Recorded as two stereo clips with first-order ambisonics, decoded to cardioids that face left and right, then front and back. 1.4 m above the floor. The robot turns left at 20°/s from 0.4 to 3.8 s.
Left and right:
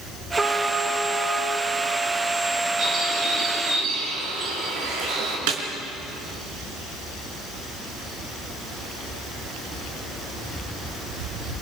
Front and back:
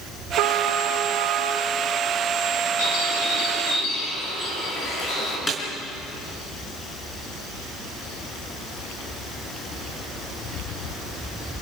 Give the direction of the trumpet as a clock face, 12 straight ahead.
6 o'clock.